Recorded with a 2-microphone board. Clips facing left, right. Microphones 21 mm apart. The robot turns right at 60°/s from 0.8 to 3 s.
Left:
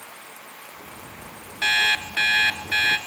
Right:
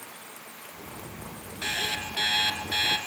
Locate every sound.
1.6 s an alarm clock: 40° left, 2 m; by 3.0 s 125° left, 2 m